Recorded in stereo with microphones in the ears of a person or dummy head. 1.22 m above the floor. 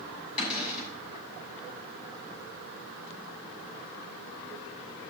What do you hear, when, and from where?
0.4 s a cupboard door: 25° left (ahead or behind), 6.5 m